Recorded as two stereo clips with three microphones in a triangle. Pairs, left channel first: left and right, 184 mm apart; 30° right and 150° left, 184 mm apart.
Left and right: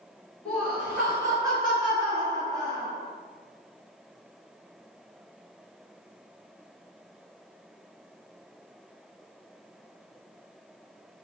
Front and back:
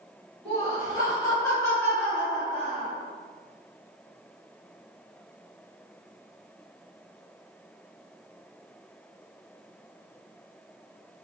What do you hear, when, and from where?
0.5 s laughter: 5° left, 1.3 m; by 2.9 s 115° right, 1.7 m